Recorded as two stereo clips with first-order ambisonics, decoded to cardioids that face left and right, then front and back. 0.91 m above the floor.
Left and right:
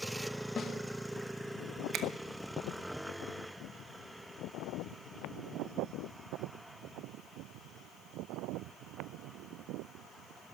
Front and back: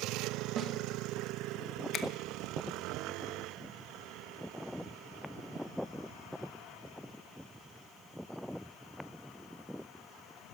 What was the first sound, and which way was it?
A snare drum, 140° left.